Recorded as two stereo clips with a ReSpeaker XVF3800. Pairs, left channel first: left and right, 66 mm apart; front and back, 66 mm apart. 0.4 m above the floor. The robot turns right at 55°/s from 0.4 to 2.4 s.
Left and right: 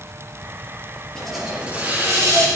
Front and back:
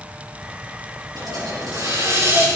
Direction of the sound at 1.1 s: 170° left.